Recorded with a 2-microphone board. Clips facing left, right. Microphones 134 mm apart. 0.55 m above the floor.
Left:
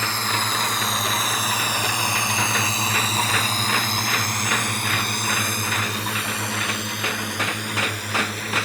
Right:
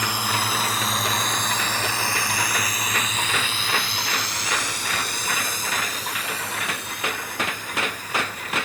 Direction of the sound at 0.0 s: 15° right (ahead or behind).